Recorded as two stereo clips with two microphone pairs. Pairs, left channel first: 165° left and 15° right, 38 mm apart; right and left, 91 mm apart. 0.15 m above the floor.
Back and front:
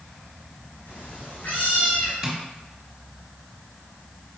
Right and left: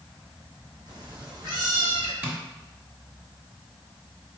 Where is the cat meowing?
130° left, 2 m.